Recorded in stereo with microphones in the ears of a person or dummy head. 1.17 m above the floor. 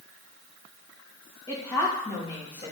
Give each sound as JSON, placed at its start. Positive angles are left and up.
{"t": 1.5, "sound": "a woman speaking", "side_deg": 20, "distance_m": 1.5}